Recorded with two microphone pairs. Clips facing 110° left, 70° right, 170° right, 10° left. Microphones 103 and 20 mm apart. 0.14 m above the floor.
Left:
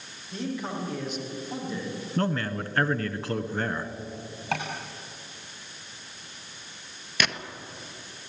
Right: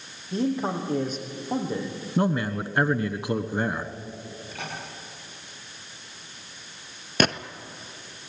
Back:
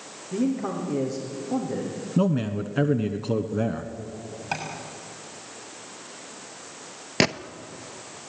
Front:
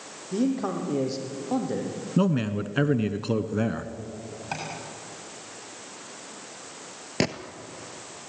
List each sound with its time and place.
0.3 s a man speaking: 20° right, 6 m
2.2 s a man speaking: 10° right, 1.1 m
4.5 s tapping: 110° left, 6.5 m
7.2 s a gunshot: 110° right, 0.9 m